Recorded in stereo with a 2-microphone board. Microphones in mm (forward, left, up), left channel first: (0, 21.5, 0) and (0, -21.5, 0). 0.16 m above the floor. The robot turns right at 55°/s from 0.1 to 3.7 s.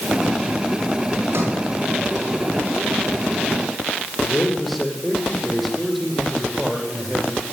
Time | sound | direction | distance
1.3 | a sliding door | 70° right (ahead or behind) | 9 m
4.2 | a man speaking | centre (ahead or behind) | 7.5 m